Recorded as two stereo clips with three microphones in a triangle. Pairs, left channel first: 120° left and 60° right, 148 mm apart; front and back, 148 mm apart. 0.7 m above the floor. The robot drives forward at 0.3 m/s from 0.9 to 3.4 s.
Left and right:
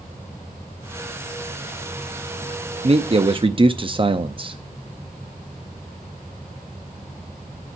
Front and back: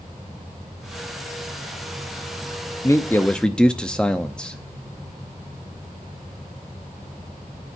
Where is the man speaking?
55° right, 0.6 m; by 4.6 s 80° right, 0.6 m.